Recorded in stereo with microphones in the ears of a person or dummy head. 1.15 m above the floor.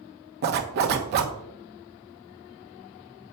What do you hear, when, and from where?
0.4 s a zipper: 55° right (ahead or behind), 1.1 m